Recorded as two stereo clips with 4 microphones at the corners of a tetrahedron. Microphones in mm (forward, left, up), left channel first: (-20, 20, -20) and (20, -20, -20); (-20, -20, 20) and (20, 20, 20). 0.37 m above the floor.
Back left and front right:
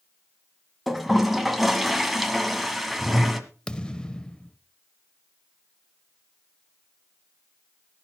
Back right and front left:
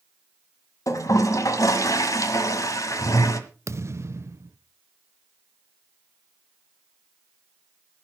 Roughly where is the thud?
Ahead left.